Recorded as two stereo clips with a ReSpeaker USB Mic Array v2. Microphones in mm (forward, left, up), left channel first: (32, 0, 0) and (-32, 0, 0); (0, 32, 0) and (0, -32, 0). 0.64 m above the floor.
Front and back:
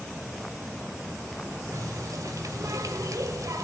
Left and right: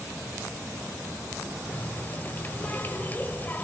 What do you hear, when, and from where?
1.7 s a running tap: 150° left, 1.6 m